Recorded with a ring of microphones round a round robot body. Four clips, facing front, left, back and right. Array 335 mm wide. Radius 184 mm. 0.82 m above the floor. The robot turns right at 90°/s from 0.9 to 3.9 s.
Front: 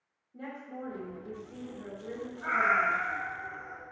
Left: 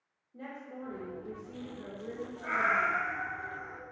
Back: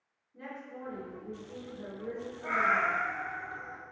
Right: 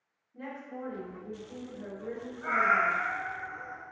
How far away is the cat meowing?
About 0.8 m.